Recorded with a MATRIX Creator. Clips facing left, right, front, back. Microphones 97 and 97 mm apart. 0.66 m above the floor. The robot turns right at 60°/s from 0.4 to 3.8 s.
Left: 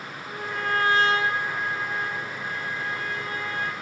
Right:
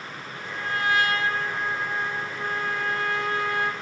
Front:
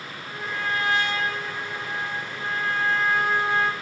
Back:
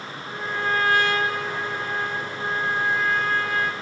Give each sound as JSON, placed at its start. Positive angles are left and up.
{"t": 0.3, "sound": "a trumpet", "azimuth_deg": 110, "distance_m": 0.6}